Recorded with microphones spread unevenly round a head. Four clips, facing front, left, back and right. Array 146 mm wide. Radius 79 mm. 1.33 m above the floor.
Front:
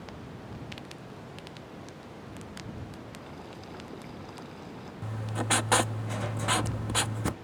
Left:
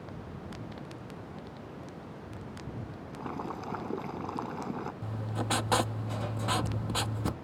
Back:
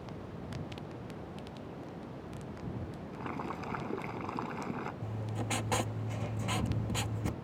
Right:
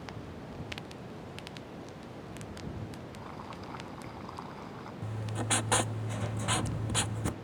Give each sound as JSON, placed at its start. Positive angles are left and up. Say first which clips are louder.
{"t": 3.1, "sound": "boiling", "louder": "left 6 dB, back 5 dB", "azimuth_deg": 115}
{"t": 5.0, "sound": "writing", "louder": "right 2 dB, front 5 dB", "azimuth_deg": -5}